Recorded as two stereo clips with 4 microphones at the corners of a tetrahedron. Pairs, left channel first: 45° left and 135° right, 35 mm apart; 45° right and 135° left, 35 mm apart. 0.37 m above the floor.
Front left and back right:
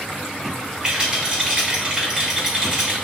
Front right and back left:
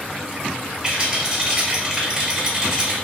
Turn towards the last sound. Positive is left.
turn(degrees=180)